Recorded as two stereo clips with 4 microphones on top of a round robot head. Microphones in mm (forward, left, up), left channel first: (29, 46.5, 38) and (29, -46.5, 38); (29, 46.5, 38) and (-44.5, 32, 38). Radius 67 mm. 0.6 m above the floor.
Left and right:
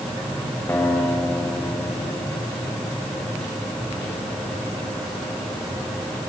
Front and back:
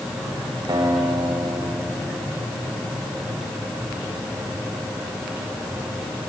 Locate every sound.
0.7 s a guitar: 165° left, 3.5 m